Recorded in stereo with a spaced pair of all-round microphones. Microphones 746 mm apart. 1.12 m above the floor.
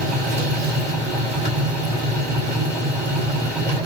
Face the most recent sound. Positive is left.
turn(degrees=-35)  # may be behind; listen again after turning